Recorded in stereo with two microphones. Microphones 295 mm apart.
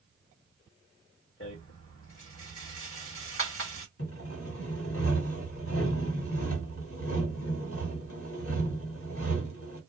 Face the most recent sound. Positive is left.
turn(degrees=50)  # may be behind; listen again after turning